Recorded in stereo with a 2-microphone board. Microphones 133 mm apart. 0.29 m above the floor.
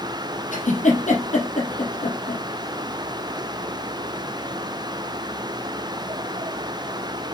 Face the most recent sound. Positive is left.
turn(degrees=70)  # may be behind; listen again after turning